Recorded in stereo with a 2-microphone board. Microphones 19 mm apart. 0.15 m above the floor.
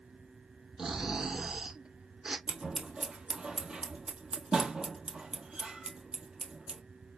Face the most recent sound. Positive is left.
turn(degrees=-60)  # may be behind; listen again after turning